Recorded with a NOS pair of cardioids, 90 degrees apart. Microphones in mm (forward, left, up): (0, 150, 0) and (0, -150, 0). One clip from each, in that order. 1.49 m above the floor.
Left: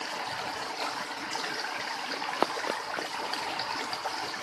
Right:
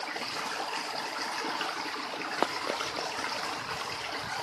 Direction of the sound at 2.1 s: 15° left.